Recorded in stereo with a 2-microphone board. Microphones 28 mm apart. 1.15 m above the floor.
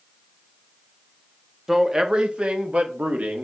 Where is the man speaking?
10° right (ahead or behind), 0.7 m; by 3.4 s 60° right (ahead or behind), 1.3 m.